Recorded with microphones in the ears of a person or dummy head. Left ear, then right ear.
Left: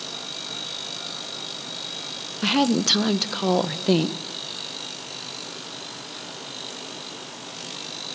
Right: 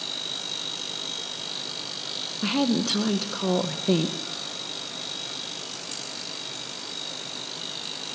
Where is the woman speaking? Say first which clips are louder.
Left 5 dB; 25° left (ahead or behind), 1.5 m.